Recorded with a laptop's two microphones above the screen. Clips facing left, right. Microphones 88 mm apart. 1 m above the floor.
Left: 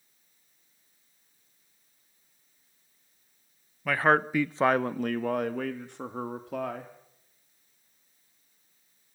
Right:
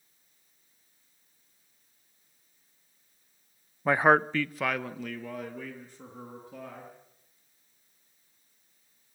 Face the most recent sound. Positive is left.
turn(degrees=70)  # may be behind; listen again after turning